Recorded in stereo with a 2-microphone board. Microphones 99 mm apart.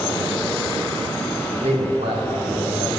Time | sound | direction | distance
1.6 | a man speaking | 75° right (ahead or behind) | 2.0 m